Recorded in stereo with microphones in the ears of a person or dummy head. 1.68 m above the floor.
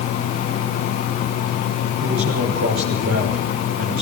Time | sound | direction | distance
2.0 | a man speaking | 60° right (ahead or behind) | 8 m